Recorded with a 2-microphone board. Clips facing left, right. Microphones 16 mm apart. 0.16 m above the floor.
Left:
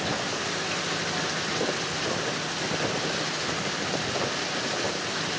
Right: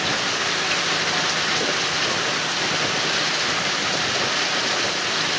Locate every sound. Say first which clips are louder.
0.0 s running water: right 7 dB; 40° right (ahead or behind)